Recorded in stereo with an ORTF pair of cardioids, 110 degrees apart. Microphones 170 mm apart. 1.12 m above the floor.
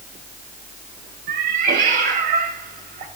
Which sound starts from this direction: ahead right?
A cat meowing, at 1.3 s.